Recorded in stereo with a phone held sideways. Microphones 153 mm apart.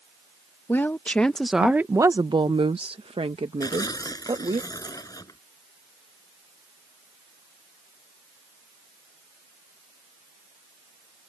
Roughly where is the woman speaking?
Centre.